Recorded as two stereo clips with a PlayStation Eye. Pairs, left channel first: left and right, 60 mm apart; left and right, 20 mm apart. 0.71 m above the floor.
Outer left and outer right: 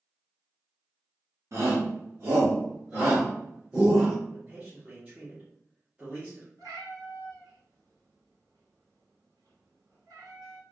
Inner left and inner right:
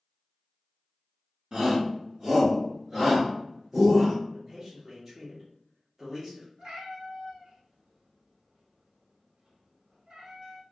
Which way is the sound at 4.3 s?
25° right (ahead or behind).